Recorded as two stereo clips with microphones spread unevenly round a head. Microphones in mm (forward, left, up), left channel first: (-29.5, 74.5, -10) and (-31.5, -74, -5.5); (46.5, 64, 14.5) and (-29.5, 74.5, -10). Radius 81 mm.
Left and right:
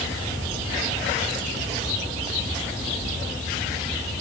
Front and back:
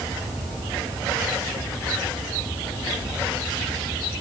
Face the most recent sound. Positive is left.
No sound to turn to.